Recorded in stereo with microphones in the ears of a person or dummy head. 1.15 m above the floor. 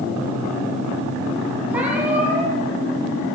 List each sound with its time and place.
1.7 s a cat meowing: centre (ahead or behind), 9.5 m